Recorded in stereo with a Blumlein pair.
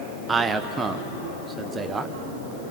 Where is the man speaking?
15° right, 1.6 m.